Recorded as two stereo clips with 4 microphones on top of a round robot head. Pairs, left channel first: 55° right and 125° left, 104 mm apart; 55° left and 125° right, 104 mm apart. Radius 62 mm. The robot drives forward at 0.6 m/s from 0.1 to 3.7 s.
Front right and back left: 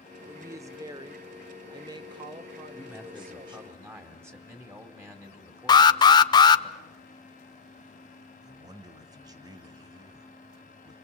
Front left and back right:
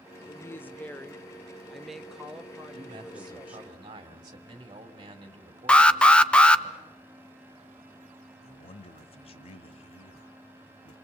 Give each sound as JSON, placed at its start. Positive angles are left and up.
{"t": 0.3, "sound": "a woman speaking", "azimuth_deg": 90, "distance_m": 1.3}
{"t": 2.7, "sound": "a man speaking", "azimuth_deg": -165, "distance_m": 2.5}
{"t": 5.7, "sound": "an alarm", "azimuth_deg": -20, "distance_m": 0.7}
{"t": 8.4, "sound": "a man speaking", "azimuth_deg": 75, "distance_m": 1.7}